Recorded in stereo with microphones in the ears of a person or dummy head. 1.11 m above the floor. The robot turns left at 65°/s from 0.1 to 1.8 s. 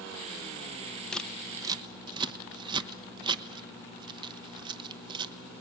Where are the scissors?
10° left (ahead or behind), 0.9 m; by 5.3 s 25° right (ahead or behind), 0.9 m.